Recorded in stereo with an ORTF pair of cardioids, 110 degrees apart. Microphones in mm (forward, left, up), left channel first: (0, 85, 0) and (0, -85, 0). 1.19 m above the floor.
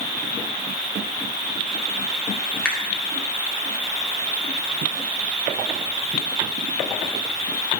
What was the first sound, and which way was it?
A finger snap, 5° left.